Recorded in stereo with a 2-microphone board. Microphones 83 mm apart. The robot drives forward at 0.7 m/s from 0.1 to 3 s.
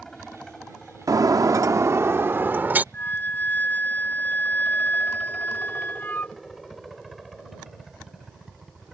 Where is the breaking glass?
45° right (ahead or behind); by 2.8 s 20° right (ahead or behind).